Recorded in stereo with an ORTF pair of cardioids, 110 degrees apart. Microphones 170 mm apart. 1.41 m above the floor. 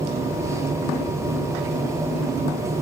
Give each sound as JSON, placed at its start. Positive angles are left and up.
{"t": 0.0, "sound": "a machine running", "azimuth_deg": -15, "distance_m": 1.1}